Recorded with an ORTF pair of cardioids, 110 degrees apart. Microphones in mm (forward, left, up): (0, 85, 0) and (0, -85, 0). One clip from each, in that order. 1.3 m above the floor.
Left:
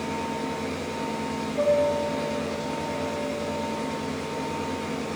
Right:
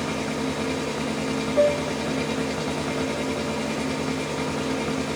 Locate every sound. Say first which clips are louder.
0.0 s a machine running: right 2 dB; 55° right, 1.4 m
1.6 s a piano: even; 65° right, 3 m